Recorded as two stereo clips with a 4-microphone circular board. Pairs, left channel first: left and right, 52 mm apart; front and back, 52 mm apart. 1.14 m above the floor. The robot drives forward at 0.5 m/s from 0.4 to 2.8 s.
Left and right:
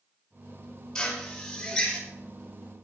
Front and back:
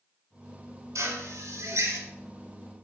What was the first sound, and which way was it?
A drill, 170° left.